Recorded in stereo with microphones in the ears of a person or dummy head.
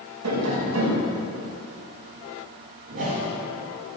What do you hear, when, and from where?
0.2 s tapping: 85° right, 6 m
2.9 s a whoosh: 55° right (ahead or behind), 5.5 m